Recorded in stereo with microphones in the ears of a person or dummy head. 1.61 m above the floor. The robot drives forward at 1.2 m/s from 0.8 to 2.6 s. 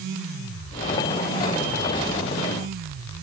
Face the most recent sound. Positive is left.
No sound to turn to.